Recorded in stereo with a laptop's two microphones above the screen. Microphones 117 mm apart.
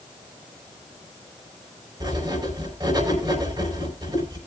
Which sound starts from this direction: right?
Writing, at 2.0 s.